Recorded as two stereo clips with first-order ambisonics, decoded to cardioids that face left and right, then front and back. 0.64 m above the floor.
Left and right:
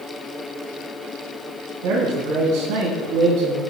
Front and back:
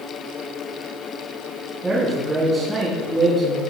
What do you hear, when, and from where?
1.8 s a man speaking: 110° right, 3.5 m